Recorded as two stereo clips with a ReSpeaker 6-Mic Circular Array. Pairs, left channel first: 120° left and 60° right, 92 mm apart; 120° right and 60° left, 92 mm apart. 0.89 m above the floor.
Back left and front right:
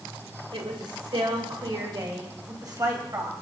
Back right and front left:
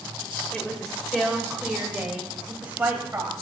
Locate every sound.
0.5 s a woman speaking: 40° right, 3 m; by 3.3 s 5° right, 4.5 m